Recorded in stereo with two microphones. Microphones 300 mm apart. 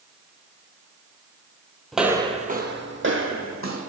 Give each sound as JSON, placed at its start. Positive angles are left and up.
{"t": 1.9, "sound": "footsteps", "side_deg": 0, "distance_m": 0.8}